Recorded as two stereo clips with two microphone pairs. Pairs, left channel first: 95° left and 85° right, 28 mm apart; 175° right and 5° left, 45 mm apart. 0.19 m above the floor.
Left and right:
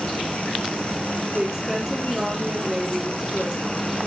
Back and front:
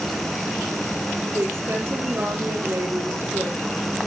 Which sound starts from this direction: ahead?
A woman speaking, at 1.3 s.